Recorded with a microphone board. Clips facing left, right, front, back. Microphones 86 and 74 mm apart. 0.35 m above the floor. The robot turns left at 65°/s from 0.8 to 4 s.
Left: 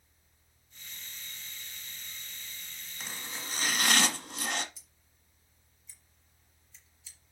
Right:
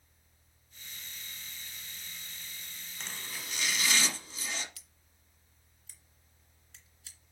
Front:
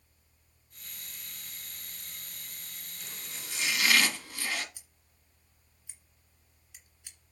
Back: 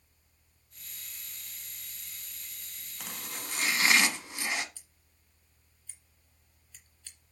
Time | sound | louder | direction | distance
3.0 | chopping | left 2 dB, back 6 dB | 175° left | 1.0 m
4.8 | scissors | right 2 dB, front 2 dB | 75° right | 2 m